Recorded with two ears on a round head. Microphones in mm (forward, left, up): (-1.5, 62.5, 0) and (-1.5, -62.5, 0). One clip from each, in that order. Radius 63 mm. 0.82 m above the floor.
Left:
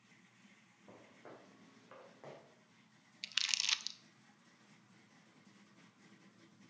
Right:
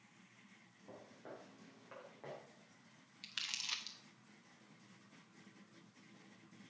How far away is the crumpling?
About 0.6 m.